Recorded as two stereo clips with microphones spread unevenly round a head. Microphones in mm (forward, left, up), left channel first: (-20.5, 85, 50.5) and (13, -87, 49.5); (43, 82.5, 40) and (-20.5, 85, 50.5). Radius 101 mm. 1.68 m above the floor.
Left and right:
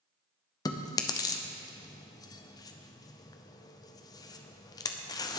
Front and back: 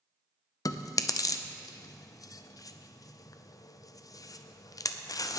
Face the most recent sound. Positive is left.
turn(degrees=30)